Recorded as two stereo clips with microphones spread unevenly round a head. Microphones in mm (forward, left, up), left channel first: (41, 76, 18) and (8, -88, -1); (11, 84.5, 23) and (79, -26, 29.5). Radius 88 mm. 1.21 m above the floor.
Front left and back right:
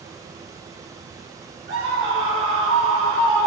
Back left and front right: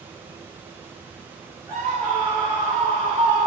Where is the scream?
130° right, 3.5 m.